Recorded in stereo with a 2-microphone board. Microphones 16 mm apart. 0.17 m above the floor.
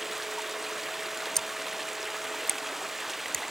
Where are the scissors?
35° left (ahead or behind).